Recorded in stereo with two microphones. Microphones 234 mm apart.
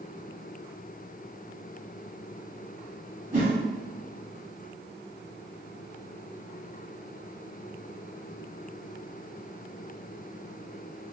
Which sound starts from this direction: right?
A whoosh, at 3.3 s.